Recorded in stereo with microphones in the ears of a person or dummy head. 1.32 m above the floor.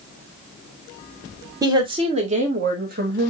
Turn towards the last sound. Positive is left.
turn(degrees=-55)  # may be behind; listen again after turning